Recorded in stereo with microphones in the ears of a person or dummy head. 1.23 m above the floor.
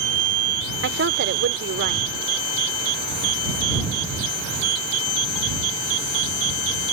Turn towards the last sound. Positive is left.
turn(degrees=-50)  # may be behind; listen again after turning